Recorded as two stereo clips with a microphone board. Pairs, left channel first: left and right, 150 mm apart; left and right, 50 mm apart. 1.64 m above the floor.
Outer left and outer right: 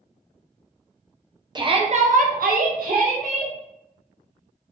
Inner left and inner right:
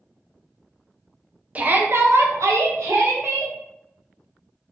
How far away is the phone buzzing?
No phone buzzing in this recording.